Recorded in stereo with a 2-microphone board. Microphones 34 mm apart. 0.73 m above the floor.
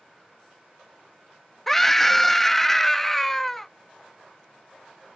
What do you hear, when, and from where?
1.7 s a scream: 10° left (ahead or behind)